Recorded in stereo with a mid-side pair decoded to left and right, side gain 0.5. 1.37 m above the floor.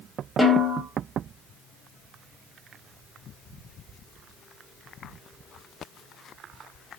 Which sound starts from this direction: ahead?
A snare drum, at 0.4 s.